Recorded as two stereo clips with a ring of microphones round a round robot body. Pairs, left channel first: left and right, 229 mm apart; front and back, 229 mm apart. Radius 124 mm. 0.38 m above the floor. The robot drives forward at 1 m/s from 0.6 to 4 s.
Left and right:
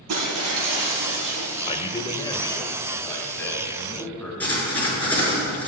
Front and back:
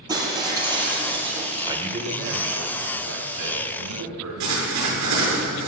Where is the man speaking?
120° left, 0.9 m; by 4.3 s 170° left, 2.5 m.